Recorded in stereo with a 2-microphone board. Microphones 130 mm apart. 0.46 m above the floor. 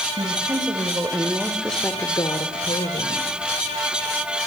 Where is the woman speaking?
40° right (ahead or behind), 2.5 m; by 3.2 s 60° left (ahead or behind), 2.0 m.